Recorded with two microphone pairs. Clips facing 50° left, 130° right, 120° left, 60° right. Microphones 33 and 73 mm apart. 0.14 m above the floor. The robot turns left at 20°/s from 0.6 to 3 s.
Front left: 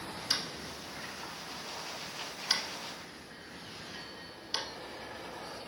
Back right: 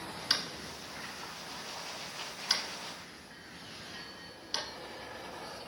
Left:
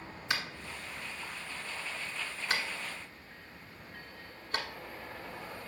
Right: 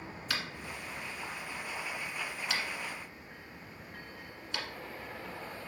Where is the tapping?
175° left, 1.5 m; by 4.7 s 130° left, 1.5 m.